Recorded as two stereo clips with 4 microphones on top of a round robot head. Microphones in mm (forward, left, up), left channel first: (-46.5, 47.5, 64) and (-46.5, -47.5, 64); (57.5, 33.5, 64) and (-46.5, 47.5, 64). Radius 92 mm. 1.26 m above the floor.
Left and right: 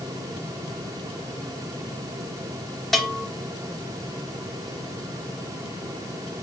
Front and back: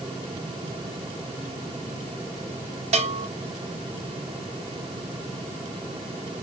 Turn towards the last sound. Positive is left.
turn(degrees=180)